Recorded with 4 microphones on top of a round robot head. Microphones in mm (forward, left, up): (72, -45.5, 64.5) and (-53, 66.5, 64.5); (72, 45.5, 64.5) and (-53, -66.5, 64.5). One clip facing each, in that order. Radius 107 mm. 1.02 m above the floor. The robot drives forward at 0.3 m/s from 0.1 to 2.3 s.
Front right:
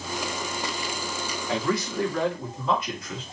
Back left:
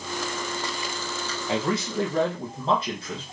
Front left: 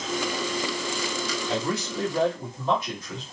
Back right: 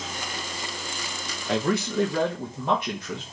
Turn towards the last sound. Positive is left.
turn(degrees=-165)